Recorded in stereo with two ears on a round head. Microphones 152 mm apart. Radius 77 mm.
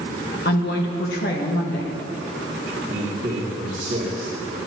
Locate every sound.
0.5 s a woman speaking: 60° left (ahead or behind), 1.7 m
2.9 s a man speaking: 35° right (ahead or behind), 3 m